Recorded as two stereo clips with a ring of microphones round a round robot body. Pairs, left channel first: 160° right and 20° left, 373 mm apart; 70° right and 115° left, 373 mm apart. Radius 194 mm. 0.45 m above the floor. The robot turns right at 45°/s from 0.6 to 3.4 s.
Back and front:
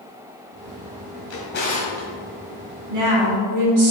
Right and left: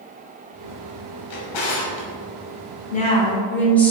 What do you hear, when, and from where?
1.3 s a drawer: 105° right, 1.4 m; by 2.1 s 70° right, 1.4 m
2.9 s a woman speaking: 5° right, 1.6 m; by 3.9 s 20° left, 1.6 m